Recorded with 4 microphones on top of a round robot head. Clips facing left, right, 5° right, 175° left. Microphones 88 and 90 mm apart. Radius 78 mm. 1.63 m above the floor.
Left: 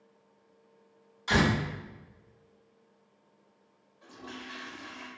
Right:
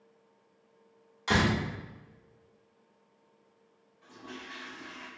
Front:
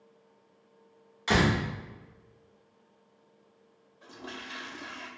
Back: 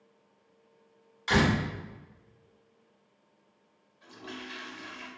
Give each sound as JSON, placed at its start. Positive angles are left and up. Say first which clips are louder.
{"t": 1.3, "sound": "a door slam", "louder": "left 1 dB, even", "azimuth_deg": -40, "distance_m": 1.5}
{"t": 4.0, "sound": "a toilet flushing", "louder": "left 1 dB, even", "azimuth_deg": 50, "distance_m": 0.6}